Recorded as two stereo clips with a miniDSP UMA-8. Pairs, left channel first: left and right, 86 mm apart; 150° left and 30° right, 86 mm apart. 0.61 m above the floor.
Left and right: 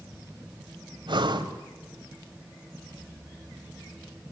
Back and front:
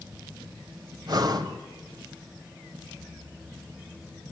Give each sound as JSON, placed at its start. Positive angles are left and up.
{"t": 1.1, "sound": "breathing", "azimuth_deg": -70, "distance_m": 1.5}